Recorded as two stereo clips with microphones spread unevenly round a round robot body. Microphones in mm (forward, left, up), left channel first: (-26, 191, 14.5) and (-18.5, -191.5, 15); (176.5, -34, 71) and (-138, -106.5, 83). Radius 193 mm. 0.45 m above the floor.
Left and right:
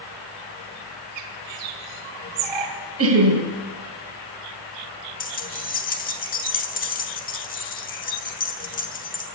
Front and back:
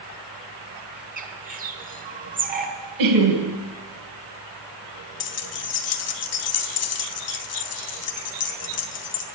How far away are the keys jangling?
About 1.0 m.